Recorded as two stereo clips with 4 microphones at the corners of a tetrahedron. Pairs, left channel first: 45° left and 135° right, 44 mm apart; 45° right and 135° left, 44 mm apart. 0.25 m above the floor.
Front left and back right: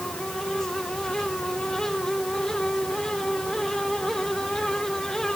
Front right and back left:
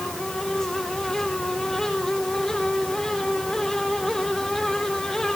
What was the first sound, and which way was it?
Only background noise.